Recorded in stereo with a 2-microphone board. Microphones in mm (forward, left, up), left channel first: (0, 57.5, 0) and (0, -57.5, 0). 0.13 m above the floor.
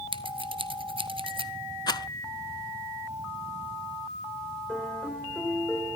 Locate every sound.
0.1 s scissors: 55° right (ahead or behind), 1.3 m
1.9 s a rattle: 40° left (ahead or behind), 0.6 m
4.7 s a piano: 5° left (ahead or behind), 4.5 m